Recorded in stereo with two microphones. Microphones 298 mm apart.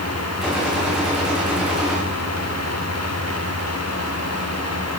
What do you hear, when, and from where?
0.4 s a gunshot: centre (ahead or behind), 6 m